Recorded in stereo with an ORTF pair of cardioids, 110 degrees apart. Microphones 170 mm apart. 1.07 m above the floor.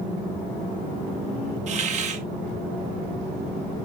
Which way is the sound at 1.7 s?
45° right.